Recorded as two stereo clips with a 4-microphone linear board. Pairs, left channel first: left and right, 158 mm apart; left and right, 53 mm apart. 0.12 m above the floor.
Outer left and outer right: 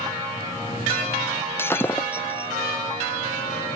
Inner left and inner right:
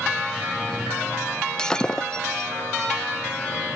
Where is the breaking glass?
15° left (ahead or behind).